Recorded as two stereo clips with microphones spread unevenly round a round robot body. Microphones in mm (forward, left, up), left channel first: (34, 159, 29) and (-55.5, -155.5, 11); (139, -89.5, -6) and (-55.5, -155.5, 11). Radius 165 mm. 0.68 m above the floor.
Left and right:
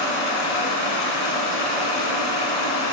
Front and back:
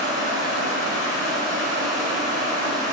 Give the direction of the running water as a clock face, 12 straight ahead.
10 o'clock.